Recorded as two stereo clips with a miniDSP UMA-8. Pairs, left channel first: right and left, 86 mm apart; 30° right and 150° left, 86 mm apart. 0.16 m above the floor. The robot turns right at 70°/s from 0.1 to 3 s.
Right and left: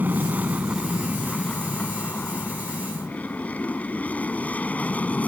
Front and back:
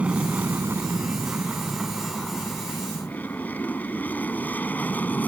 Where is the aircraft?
105° left; by 5.3 s 55° right.